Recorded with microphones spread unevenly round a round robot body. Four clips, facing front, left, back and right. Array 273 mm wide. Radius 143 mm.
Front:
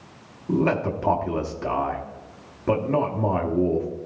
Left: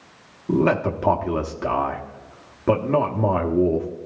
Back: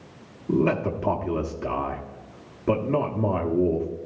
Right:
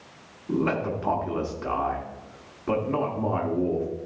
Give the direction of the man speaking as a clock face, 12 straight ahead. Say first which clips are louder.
Left 6 dB, even; 8 o'clock.